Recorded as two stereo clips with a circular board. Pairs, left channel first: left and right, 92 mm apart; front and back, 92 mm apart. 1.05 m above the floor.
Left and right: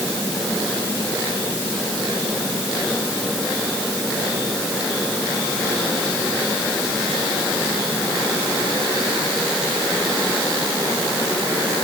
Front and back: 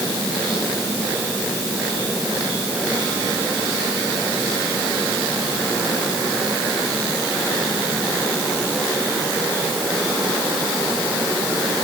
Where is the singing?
I don't hear singing.